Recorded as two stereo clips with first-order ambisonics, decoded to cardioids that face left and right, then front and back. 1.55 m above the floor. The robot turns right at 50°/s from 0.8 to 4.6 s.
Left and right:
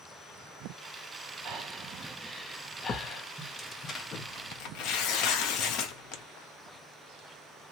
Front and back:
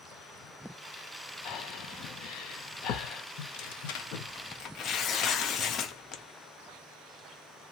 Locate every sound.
1.4 s breathing: 40° right, 0.6 m; by 3.2 s 50° left, 0.6 m
3.4 s tearing paper: 5° right, 0.6 m; by 6.2 s 55° left, 0.6 m